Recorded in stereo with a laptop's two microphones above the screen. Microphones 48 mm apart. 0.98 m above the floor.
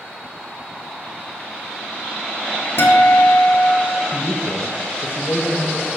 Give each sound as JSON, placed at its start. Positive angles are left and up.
{"t": 2.8, "sound": "a guitar", "side_deg": 60, "distance_m": 1.4}
{"t": 4.1, "sound": "a man speaking", "side_deg": 50, "distance_m": 0.9}